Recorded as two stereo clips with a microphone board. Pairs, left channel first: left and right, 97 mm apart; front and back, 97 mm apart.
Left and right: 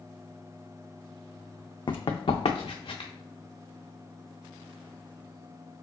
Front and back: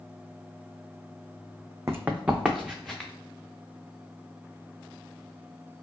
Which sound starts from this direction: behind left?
Running footsteps, at 1.9 s.